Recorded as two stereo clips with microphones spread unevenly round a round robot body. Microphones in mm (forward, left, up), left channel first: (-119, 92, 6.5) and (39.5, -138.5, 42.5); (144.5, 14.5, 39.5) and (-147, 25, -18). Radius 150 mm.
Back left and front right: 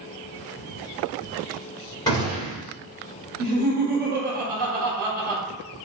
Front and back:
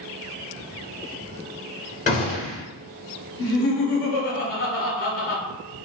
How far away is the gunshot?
About 1.2 m.